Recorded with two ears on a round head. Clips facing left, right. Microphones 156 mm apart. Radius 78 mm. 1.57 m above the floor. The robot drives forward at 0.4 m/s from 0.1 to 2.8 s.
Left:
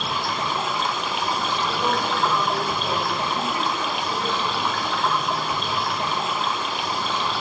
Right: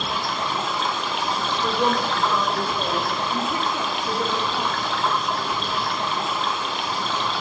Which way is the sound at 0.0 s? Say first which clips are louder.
Even; centre (ahead or behind).